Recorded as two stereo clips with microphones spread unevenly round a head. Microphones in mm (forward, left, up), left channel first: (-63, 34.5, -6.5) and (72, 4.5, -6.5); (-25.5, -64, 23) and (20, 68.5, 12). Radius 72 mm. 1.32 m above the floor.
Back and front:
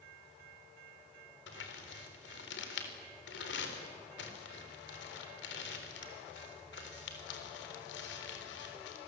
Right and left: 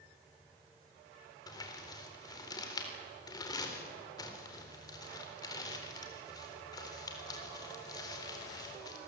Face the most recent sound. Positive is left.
turn(degrees=-175)